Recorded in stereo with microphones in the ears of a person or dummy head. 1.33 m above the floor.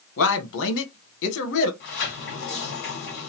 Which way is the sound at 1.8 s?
55° left (ahead or behind).